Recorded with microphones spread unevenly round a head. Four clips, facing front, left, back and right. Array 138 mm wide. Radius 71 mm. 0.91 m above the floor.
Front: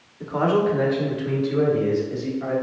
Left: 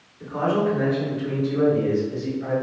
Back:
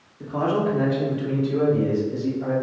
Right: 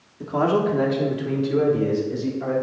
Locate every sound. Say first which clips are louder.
0.2 s a man speaking: right 2 dB, front 2 dB; 100° right, 1.9 m